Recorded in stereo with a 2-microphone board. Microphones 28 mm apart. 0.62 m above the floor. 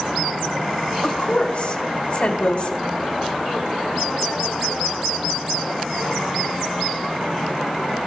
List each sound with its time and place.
1.0 s a woman speaking: 45° left (ahead or behind), 3 m